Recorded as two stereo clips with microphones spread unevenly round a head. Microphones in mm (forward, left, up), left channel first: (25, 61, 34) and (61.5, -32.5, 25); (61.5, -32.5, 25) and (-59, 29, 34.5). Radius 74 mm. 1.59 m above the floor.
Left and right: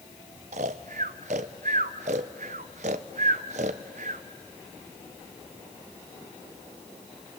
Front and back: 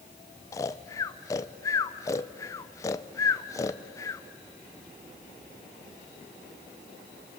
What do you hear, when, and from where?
0.5 s snoring: 95° right, 0.6 m